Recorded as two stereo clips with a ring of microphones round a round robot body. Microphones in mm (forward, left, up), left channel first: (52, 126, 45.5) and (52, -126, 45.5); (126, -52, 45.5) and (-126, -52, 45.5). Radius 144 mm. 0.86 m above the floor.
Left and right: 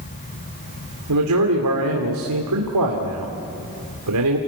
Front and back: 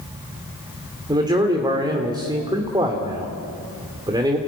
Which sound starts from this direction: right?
A man speaking, at 1.1 s.